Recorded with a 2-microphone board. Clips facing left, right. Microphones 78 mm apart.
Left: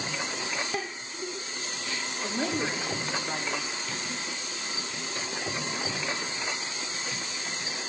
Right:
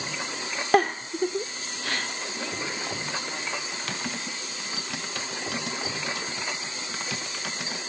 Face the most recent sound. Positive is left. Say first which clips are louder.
# right 2 dB
turn(degrees=-80)